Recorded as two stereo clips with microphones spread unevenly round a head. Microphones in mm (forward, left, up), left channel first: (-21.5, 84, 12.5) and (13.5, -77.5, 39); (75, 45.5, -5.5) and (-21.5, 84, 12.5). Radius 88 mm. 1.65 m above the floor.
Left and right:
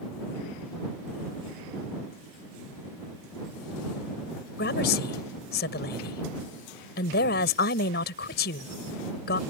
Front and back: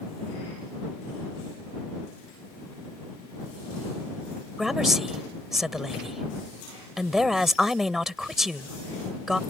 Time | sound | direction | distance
4.6 | a woman speaking | 75° left | ?